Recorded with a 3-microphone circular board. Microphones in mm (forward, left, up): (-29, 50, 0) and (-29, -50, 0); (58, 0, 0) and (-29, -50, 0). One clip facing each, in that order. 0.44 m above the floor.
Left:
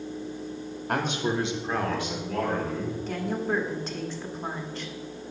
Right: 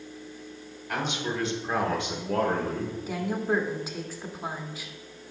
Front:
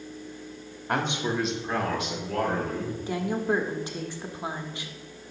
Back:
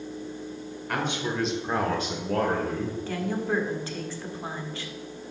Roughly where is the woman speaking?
Ahead.